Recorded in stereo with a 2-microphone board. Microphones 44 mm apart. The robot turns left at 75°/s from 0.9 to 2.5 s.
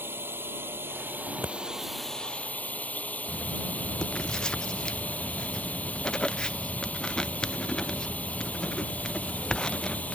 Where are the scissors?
45° right (ahead or behind); by 1.6 s 70° right (ahead or behind).